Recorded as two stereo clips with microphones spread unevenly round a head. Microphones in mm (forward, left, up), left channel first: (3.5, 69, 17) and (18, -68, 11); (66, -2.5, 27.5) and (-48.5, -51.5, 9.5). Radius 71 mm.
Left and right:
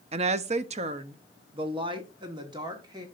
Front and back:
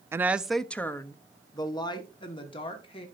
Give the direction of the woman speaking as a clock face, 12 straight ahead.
3 o'clock.